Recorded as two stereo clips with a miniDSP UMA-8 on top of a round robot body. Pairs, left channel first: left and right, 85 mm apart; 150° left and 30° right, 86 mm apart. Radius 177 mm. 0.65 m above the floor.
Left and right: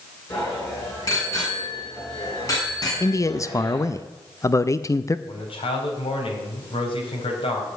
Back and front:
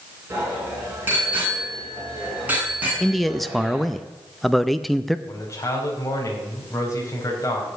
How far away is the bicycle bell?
About 7.5 m.